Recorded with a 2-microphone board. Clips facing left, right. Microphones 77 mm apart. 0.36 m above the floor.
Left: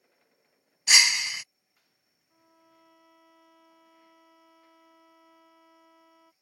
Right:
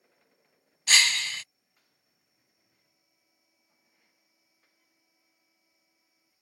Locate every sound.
0.9 s breaking glass: 15° left (ahead or behind)
2.3 s a violin: 80° left